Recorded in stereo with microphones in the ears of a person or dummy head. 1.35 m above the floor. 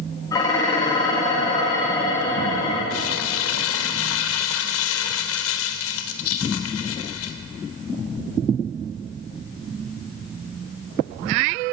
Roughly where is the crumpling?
Left.